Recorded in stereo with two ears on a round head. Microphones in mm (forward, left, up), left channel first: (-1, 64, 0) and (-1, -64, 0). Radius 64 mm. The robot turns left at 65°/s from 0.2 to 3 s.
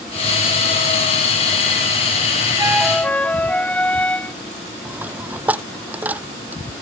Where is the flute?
20° right (ahead or behind); by 4.3 s 10° left (ahead or behind).